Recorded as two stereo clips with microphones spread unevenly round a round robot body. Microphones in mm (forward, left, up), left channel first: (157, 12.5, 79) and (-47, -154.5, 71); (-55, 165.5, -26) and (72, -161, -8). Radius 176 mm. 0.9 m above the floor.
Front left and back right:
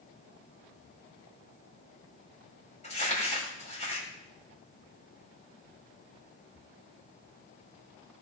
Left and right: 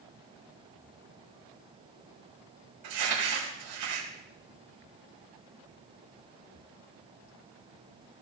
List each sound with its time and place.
2.8 s crumpling: 25° right, 6 m